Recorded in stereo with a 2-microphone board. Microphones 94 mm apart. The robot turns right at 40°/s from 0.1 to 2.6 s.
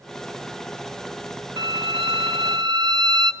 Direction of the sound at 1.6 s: 105° right.